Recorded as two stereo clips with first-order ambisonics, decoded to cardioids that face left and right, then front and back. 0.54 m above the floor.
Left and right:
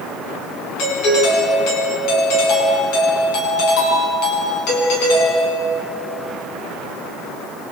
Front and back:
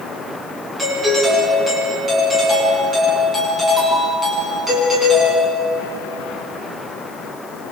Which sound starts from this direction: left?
A doorbell, at 0.8 s.